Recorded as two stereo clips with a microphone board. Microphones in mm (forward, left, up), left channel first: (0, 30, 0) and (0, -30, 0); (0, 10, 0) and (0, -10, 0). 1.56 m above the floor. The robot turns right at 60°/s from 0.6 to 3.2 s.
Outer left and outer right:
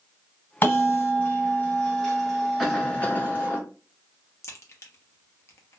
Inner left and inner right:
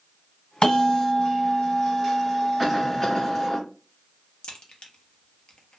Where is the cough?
5° left, 1.3 m; by 3.6 s 40° left, 1.3 m.